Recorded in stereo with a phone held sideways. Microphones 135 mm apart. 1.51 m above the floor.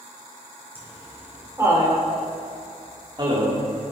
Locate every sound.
0.8 s laughter: 15° right (ahead or behind), 5.5 m; by 3.6 s 40° right (ahead or behind), 3.5 m